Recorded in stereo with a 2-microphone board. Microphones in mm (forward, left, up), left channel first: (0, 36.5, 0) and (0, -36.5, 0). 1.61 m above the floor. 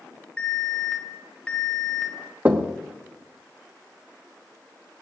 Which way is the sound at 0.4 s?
15° left (ahead or behind).